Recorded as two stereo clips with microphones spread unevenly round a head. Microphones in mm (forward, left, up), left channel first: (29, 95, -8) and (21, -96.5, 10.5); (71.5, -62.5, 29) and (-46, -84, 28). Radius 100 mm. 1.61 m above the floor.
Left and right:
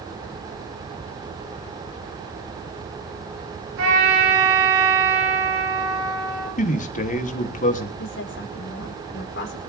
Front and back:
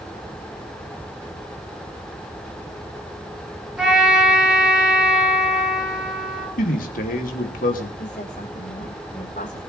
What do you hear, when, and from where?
3.8 s a trumpet: 90° right, 8.5 m
6.6 s a man speaking: 35° left, 3 m
8.0 s a woman speaking: 60° left, 4.5 m